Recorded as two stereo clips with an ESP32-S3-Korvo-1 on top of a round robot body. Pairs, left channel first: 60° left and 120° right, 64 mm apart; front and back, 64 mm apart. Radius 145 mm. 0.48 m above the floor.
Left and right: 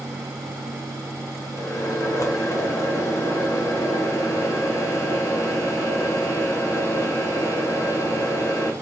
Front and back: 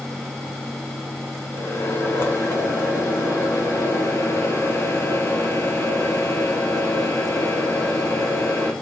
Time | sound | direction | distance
1.5 | a microwave | 40° left | 1.5 m